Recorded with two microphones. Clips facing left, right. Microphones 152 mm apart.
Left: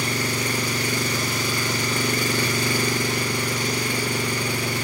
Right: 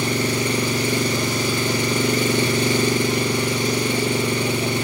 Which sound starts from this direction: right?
An engine running, at 0.0 s.